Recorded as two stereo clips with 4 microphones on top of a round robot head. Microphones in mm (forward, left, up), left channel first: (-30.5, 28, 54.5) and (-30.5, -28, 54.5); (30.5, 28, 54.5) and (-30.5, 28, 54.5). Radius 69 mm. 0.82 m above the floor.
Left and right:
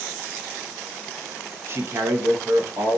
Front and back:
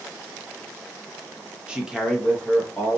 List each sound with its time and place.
1.7 s a man speaking: 110° right, 0.8 m; by 3.0 s 55° right, 1.1 m